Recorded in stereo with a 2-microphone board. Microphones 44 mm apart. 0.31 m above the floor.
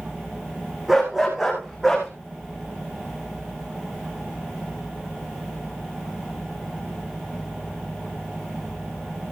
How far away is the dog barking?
About 9.5 m.